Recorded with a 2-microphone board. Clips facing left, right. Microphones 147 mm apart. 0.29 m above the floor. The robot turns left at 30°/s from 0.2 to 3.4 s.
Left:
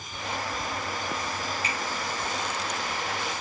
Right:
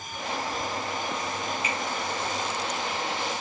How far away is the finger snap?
About 3 m.